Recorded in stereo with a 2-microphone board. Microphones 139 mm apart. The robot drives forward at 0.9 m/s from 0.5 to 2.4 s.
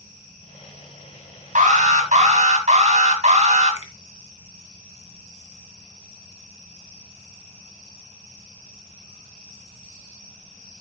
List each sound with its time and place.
1.6 s an alarm: 65° right (ahead or behind), 2.5 m; by 3.8 s 60° right (ahead or behind), 2.5 m
3.8 s a finger snap: 55° left (ahead or behind), 2.5 m